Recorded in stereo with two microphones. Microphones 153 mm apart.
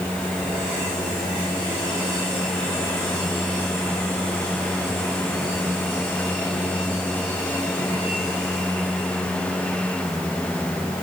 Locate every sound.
Only background noise.